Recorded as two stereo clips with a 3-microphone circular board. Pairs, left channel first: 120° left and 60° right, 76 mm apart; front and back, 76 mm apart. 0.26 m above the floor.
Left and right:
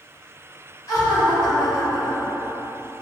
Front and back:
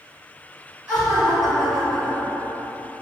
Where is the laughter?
125° left, 1.8 m.